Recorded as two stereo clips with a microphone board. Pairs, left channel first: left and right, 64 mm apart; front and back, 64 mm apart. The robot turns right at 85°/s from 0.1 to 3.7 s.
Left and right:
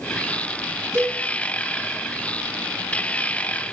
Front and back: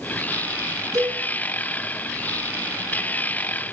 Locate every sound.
0.9 s a cowbell: 140° right, 7 m; by 1.2 s 115° right, 7 m